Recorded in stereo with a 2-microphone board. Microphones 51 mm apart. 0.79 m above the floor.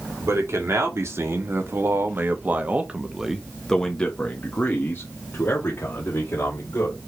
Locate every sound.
0.2 s a man speaking: 70° right (ahead or behind), 2.0 m; by 7.0 s 60° left (ahead or behind), 2 m